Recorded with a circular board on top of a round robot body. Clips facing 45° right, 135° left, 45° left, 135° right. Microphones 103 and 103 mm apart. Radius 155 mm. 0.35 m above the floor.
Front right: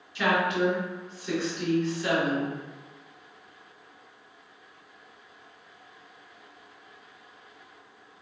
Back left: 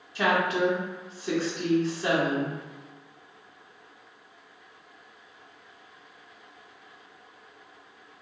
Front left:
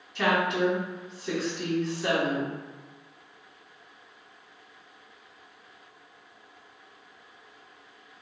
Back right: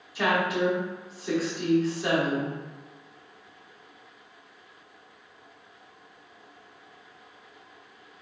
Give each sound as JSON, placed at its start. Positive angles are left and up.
{"t": 0.1, "sound": "a woman speaking", "azimuth_deg": 145, "distance_m": 1.8}